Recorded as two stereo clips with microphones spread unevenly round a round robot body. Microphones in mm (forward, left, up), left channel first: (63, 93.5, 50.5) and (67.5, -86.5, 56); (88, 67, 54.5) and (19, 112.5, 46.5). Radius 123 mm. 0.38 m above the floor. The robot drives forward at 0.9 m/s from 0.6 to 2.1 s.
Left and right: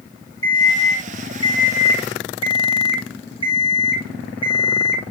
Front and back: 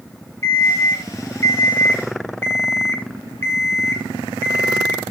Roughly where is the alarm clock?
Ahead.